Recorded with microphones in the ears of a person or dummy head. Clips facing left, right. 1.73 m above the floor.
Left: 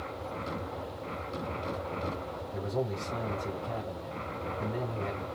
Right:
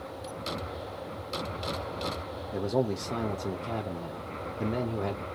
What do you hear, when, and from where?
2.5 s a man speaking: 75° right (ahead or behind), 0.7 m